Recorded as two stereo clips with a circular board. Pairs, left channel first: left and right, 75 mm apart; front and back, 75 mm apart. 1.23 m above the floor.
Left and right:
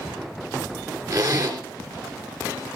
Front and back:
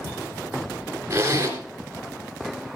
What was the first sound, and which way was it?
A zipper, 125° right.